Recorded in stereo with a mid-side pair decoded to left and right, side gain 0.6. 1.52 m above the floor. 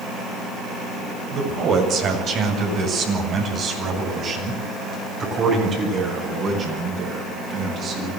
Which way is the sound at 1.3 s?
50° right.